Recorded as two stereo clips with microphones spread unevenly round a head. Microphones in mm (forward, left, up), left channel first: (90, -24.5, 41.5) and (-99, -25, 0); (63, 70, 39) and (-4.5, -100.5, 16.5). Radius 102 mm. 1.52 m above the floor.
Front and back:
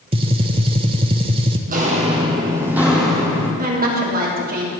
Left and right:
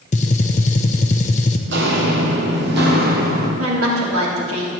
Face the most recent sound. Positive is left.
turn(degrees=-135)